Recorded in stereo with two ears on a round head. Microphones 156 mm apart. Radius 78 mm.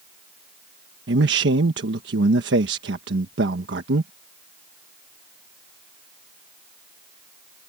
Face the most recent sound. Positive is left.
turn(degrees=-70)  # may be behind; listen again after turning